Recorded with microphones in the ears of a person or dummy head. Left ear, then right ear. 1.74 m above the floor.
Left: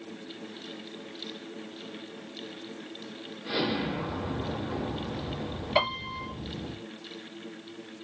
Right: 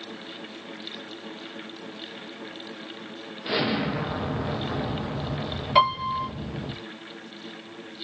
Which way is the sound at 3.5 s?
45° right (ahead or behind).